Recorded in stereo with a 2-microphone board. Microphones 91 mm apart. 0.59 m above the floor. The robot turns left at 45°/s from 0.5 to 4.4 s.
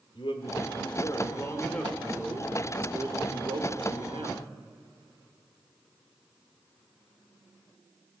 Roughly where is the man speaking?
Left.